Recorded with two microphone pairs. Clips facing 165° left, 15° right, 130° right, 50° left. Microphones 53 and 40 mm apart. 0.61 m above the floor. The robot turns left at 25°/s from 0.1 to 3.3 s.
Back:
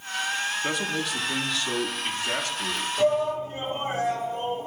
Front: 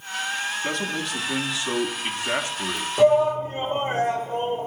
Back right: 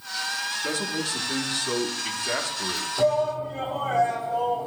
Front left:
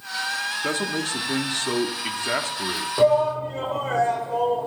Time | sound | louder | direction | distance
0.6 | a man speaking | even, front left 3 dB | 85° left | 0.8 m
3.0 | a shout | front 6 dB, front left 4 dB | 25° left | 1.9 m